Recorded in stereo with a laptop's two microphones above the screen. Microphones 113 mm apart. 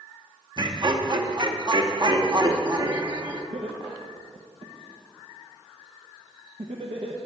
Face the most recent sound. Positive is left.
turn(degrees=-50)  # may be behind; listen again after turning